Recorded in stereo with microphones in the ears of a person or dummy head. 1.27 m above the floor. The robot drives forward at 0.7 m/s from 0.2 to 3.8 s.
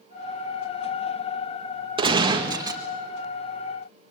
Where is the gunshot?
30° right (ahead or behind), 1.6 m; by 2.8 s 20° right (ahead or behind), 2 m.